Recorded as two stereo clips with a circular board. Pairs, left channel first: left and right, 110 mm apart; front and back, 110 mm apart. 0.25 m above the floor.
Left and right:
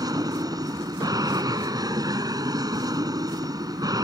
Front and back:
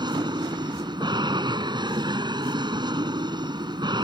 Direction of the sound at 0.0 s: 140° right.